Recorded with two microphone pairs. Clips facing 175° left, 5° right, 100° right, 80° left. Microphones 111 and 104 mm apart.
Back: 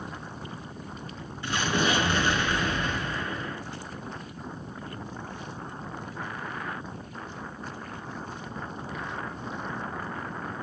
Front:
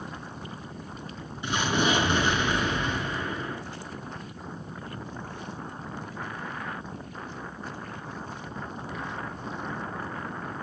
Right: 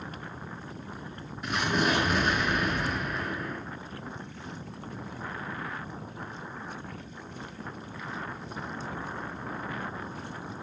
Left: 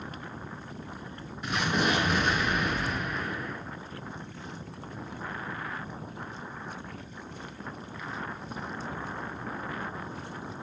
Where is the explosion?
10° right, 0.5 m.